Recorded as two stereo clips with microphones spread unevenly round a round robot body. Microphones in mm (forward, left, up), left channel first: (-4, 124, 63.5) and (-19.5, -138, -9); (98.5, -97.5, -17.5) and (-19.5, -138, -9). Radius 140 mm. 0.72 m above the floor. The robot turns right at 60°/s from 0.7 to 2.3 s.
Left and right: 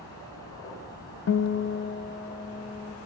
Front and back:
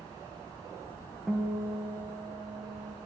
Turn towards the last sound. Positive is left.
turn(degrees=170)